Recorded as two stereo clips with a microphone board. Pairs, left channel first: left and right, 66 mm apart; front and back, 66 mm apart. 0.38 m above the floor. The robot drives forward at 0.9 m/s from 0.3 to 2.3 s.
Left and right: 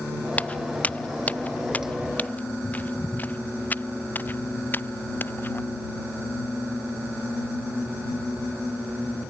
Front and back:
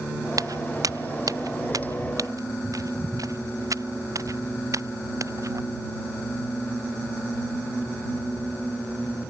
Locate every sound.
0.3 s footsteps: 160° left; by 5.6 s 145° left